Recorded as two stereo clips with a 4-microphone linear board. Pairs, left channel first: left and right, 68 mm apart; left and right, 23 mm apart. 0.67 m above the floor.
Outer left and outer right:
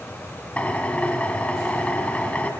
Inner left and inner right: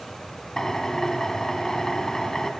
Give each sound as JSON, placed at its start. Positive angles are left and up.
{"t": 0.6, "sound": "a drill", "side_deg": 20, "distance_m": 2.5}